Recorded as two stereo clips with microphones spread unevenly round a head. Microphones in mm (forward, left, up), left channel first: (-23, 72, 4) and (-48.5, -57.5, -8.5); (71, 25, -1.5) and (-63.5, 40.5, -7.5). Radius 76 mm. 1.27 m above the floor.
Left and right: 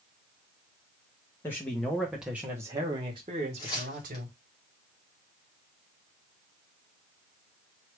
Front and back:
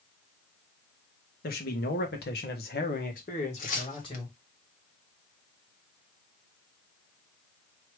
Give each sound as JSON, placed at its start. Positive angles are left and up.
{"t": 1.4, "sound": "a man speaking", "azimuth_deg": 0, "distance_m": 1.7}
{"t": 3.6, "sound": "tearing paper", "azimuth_deg": 15, "distance_m": 1.3}